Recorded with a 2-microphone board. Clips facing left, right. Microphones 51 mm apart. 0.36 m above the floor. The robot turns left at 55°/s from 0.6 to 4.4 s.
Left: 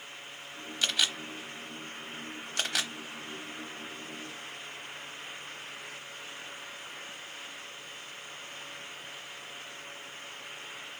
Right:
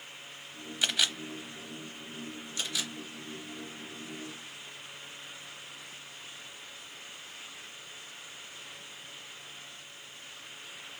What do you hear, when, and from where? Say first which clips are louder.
0.8 s a camera shutter: even; 15° right (ahead or behind), 0.9 m; by 2.9 s 70° left (ahead or behind), 0.9 m